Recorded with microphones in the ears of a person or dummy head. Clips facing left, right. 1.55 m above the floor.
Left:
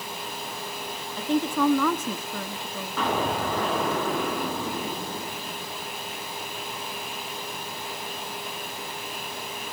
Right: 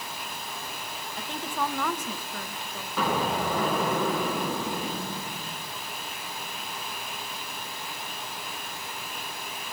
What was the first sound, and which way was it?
A woman speaking, 75° left (ahead or behind).